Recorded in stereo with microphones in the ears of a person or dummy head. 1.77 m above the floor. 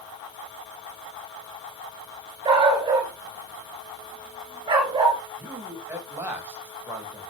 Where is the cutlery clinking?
No cutlery clinking in this recording.